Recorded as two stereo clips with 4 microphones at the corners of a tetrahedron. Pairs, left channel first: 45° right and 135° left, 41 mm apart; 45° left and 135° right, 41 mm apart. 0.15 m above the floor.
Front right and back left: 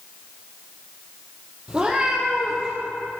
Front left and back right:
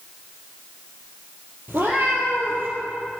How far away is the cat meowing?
About 2.5 m.